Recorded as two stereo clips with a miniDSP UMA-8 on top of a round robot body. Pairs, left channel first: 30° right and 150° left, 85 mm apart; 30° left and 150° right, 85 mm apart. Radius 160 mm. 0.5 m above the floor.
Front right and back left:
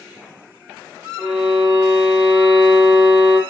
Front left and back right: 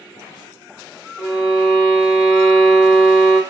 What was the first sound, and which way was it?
A violin, 75° left.